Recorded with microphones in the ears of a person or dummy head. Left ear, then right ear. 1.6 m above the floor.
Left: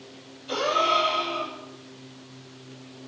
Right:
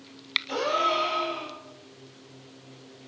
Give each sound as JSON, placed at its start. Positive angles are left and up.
{"t": 0.5, "sound": "a gasp", "side_deg": -10, "distance_m": 4.0}